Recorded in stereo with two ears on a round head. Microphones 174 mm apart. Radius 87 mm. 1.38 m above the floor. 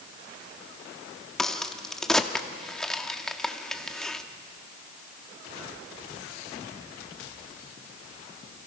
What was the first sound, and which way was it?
A crack, 5° left (ahead or behind).